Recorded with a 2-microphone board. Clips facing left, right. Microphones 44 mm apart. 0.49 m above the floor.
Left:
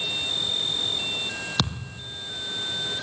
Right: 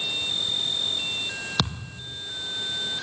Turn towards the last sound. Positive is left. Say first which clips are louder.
# even
turn(degrees=0)  # may be behind; listen again after turning